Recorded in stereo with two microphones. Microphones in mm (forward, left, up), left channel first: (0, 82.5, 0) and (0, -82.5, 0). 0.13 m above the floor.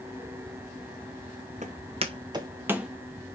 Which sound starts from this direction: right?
Footsteps, at 1.6 s.